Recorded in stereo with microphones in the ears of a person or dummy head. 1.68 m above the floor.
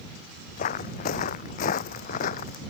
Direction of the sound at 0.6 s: 45° left (ahead or behind).